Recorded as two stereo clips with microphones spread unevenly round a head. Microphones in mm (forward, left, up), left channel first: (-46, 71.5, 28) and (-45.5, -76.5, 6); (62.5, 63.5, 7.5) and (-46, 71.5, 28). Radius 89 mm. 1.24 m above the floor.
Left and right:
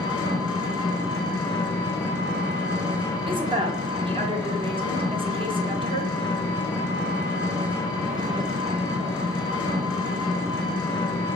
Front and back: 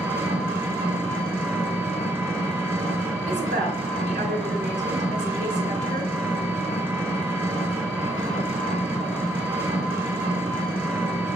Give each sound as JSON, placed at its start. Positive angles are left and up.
{"t": 0.0, "sound": "an engine running", "azimuth_deg": 120, "distance_m": 1.2}
{"t": 3.3, "sound": "a woman speaking", "azimuth_deg": -145, "distance_m": 0.8}